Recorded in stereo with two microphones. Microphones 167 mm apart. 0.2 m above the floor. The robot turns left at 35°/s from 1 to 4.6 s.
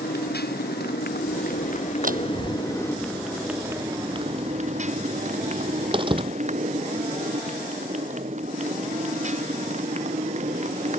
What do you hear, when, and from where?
0.0 s a motorcycle: 80° left; by 11.0 s 45° right
2.0 s a door slam: 55° right (ahead or behind); by 6.4 s 30° right (ahead or behind)